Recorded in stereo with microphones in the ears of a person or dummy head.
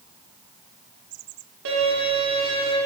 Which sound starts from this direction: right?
A violin, at 1.6 s.